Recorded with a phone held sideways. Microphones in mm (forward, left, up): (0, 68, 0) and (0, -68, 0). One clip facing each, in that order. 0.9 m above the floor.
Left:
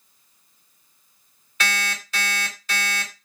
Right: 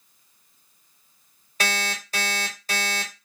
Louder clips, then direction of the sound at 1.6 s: Even; 40° right (ahead or behind).